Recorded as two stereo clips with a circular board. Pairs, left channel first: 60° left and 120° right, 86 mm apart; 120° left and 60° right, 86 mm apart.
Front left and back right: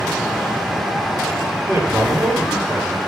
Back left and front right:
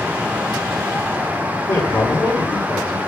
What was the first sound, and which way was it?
A man speaking, 165° left.